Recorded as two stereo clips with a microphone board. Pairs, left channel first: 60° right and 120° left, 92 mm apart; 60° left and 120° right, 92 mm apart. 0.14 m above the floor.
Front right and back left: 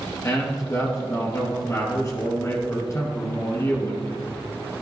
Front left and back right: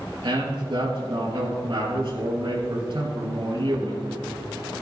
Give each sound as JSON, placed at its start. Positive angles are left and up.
{"t": 0.2, "sound": "a man speaking", "azimuth_deg": -110, "distance_m": 3.0}